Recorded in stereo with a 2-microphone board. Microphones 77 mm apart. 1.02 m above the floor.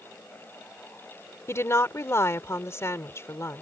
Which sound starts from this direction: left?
A woman speaking, at 1.5 s.